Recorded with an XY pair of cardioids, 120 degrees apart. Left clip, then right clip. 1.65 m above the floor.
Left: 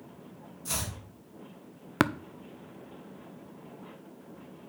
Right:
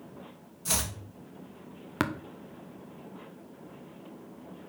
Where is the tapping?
30° left, 0.5 m.